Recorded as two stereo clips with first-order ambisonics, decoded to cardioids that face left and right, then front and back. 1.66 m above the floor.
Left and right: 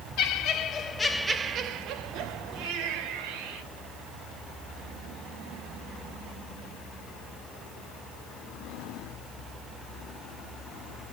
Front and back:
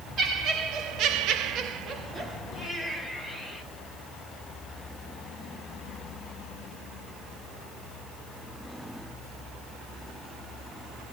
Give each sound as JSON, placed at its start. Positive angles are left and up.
{"t": 0.2, "sound": "laughter", "azimuth_deg": 120, "distance_m": 1.1}